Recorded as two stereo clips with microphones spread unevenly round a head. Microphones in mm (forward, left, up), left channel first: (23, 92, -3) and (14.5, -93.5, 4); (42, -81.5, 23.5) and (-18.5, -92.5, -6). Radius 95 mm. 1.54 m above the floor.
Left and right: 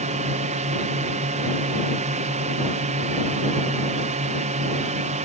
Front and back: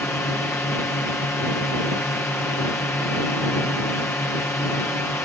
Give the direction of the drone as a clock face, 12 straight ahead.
2 o'clock.